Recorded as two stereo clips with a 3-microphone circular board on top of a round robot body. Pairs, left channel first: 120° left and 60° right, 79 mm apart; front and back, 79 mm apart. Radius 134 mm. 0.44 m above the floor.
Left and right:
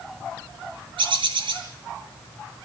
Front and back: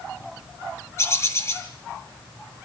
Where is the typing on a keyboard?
I don't hear typing on a keyboard.